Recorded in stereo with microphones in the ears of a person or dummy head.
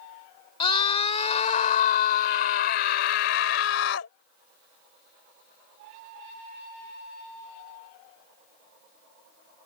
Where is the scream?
30° left (ahead or behind); by 4.1 s 75° left (ahead or behind).